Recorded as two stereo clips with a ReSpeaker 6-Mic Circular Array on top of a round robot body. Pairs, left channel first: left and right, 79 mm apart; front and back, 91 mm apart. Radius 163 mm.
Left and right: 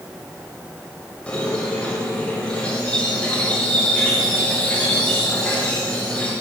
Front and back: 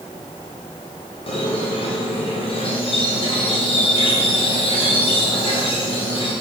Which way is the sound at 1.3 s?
15° left.